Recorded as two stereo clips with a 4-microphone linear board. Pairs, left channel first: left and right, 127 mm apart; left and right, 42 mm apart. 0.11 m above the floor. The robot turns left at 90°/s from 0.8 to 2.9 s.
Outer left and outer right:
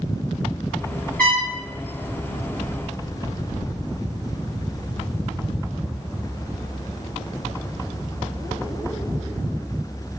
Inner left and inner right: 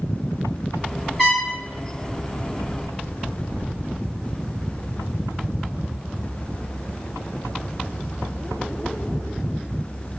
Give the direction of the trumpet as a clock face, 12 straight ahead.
6 o'clock.